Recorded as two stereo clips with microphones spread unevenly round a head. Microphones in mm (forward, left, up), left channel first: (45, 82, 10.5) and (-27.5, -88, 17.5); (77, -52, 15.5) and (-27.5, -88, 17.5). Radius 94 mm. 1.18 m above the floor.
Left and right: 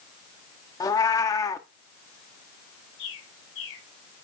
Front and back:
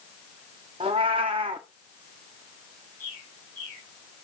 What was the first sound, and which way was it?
A cat meowing, 140° left.